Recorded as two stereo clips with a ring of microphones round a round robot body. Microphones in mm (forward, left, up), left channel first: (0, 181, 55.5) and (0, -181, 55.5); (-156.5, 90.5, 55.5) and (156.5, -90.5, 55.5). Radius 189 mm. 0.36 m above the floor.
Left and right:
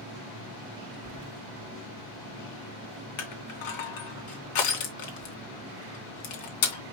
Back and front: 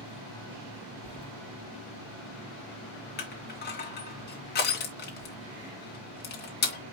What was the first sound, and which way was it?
Keys jangling, 100° right.